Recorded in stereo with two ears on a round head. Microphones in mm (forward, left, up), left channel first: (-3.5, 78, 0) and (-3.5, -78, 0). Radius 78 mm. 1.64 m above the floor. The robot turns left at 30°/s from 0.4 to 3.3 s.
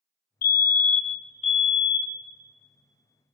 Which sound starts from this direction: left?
A fire alarm, at 0.4 s.